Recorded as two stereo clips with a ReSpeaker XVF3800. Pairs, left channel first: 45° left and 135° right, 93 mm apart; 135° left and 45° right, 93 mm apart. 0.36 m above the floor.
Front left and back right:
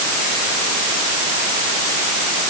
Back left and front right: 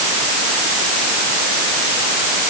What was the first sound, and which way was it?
Only background noise.